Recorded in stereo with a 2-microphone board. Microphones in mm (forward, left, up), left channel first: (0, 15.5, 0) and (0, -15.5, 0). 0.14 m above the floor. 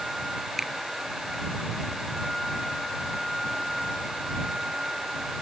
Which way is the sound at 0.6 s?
10° right (ahead or behind).